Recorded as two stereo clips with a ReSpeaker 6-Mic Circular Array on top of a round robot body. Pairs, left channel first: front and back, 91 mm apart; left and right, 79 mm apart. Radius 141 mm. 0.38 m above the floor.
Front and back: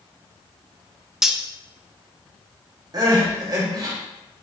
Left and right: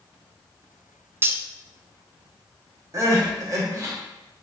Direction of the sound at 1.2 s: 100° right.